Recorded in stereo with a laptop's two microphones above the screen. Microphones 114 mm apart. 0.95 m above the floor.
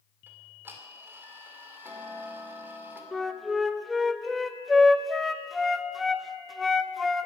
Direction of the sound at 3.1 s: Centre (ahead or behind).